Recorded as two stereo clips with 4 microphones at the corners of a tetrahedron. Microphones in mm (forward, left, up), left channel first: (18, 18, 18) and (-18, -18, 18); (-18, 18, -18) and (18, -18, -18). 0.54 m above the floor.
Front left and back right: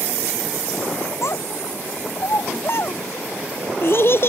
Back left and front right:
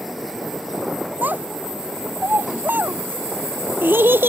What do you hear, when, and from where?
1.2 s a child speaking: 10° left; by 4.3 s straight ahead